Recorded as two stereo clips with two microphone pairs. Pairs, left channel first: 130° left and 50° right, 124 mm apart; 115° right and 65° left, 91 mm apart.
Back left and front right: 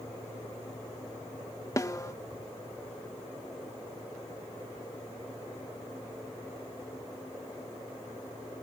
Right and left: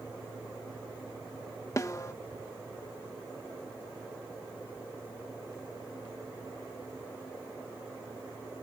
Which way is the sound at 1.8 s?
170° right.